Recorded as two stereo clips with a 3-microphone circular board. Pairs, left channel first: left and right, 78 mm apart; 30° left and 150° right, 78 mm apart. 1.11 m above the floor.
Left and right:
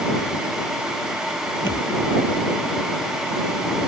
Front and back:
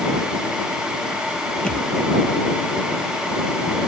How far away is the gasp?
No gasp in this recording.